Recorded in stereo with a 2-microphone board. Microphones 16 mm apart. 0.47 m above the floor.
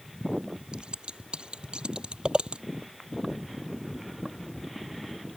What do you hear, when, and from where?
0.7 s scissors: 75° right (ahead or behind)